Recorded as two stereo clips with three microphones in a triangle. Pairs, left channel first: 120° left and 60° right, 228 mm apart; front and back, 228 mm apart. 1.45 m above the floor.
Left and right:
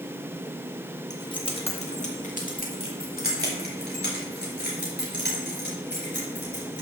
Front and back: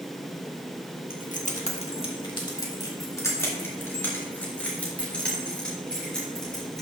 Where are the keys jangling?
50° left, 1.3 m; by 6.8 s 90° left, 5 m.